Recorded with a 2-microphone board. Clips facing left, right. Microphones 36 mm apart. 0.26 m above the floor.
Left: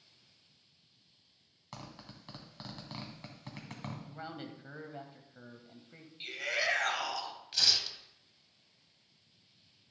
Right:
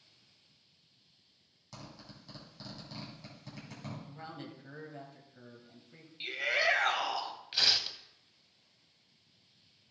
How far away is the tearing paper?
About 0.7 m.